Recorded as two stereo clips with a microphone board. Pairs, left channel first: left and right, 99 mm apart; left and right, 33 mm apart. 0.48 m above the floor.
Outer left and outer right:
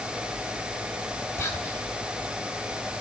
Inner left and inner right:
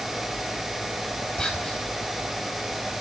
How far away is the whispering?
About 2.5 m.